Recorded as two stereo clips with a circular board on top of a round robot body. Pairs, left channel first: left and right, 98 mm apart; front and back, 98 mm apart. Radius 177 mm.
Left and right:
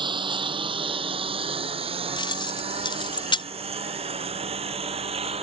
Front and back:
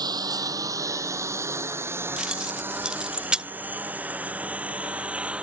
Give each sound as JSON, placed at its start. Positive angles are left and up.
{"t": 0.0, "sound": "a lawn mower", "azimuth_deg": -130}
{"t": 2.2, "sound": "keys jangling", "azimuth_deg": 100}